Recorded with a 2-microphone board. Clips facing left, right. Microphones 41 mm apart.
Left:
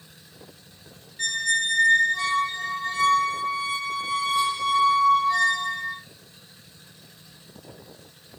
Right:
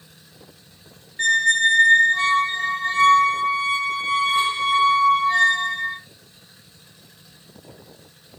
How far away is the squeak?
About 0.6 m.